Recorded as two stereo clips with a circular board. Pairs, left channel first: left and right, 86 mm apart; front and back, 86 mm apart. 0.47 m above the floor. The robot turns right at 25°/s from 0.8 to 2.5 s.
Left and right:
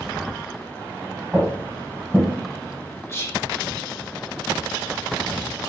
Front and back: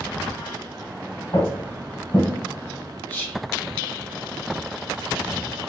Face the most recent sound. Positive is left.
turn(degrees=60)